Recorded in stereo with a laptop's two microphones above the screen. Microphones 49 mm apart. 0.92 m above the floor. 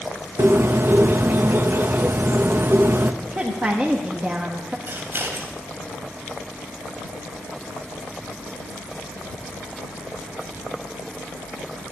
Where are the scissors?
45° right (ahead or behind), 3.5 m.